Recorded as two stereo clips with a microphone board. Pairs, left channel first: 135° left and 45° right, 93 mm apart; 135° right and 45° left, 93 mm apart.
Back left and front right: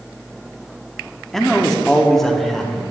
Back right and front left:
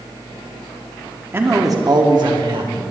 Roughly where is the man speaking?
Ahead left.